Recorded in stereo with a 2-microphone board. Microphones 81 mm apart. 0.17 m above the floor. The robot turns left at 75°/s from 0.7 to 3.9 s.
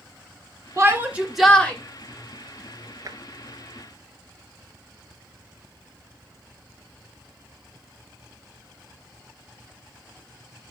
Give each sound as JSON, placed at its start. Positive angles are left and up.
{"t": 0.8, "sound": "a shout", "azimuth_deg": -135, "distance_m": 2.5}
{"t": 3.0, "sound": "tapping", "side_deg": -45, "distance_m": 0.8}